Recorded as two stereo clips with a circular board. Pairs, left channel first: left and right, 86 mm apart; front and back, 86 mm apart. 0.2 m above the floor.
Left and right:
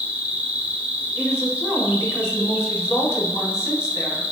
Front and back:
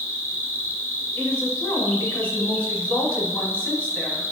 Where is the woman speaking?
60° left, 1.4 m.